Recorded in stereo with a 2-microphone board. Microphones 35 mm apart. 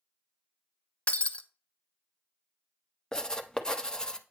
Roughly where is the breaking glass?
Left.